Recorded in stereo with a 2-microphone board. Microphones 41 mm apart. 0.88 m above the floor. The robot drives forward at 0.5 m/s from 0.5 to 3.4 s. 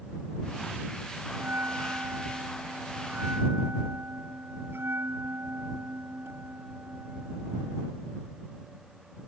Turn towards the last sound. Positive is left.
turn(degrees=-65)  # may be behind; listen again after turning